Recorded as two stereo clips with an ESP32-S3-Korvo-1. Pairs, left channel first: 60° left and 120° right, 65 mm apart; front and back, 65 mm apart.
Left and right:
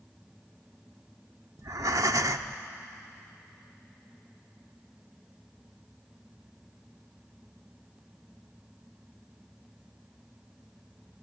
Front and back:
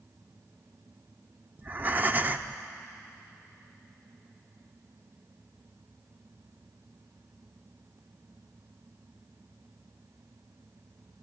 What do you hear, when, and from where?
1.6 s breathing: 125° right, 0.8 m